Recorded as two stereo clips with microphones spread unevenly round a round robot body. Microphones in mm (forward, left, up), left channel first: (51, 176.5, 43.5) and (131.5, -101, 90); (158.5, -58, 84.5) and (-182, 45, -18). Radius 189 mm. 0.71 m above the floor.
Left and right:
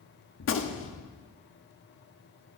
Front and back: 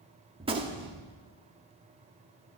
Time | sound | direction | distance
0.4 | a gunshot | 105° left | 1.6 m